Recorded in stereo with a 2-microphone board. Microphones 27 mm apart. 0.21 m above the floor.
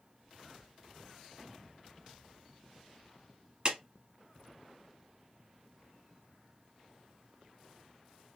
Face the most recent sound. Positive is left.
turn(degrees=-35)  # may be behind; listen again after turning